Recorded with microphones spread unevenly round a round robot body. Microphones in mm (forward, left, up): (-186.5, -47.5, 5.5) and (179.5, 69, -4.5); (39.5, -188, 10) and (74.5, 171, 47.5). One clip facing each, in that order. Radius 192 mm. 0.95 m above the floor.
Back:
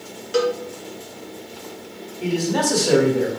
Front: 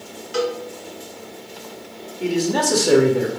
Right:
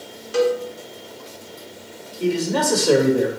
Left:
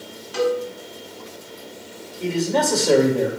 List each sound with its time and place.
0.3 s a cowbell: 140° right, 1.9 m
2.2 s a man speaking: 25° right, 2 m